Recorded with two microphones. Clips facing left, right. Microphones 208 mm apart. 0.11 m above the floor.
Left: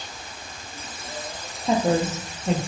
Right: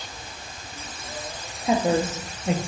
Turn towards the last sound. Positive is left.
turn(degrees=-5)  # may be behind; listen again after turning